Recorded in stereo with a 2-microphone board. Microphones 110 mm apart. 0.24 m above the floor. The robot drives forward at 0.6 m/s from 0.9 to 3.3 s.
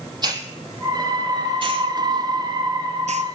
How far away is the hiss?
About 1.9 m.